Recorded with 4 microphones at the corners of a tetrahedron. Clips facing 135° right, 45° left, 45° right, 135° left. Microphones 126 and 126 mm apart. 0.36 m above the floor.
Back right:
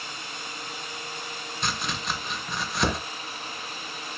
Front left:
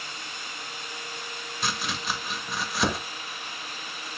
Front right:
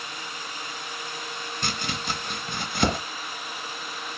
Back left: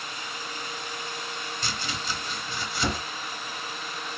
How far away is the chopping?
About 0.6 m.